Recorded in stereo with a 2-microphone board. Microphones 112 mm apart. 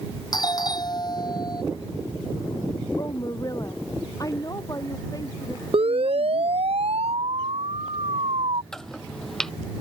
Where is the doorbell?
40° left (ahead or behind).